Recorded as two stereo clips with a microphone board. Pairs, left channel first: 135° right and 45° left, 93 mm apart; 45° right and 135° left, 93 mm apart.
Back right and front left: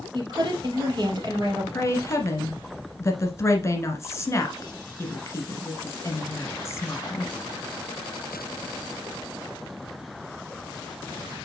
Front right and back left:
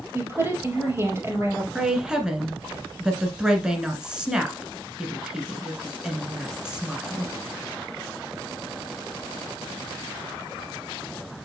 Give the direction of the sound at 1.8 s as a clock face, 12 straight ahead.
5 o'clock.